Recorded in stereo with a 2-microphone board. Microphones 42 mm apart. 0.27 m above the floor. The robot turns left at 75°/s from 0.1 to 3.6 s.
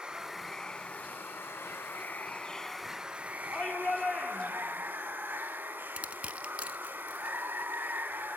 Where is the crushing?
30° right (ahead or behind), 0.6 m.